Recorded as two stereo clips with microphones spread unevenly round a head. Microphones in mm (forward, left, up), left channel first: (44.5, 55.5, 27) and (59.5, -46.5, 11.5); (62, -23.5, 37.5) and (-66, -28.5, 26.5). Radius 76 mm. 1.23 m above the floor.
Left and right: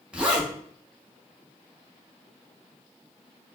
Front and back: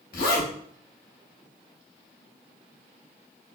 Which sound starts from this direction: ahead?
A zipper, at 0.1 s.